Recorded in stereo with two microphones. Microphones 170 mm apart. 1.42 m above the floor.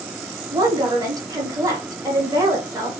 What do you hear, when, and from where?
0.5 s a woman speaking: 20° right (ahead or behind), 1.3 m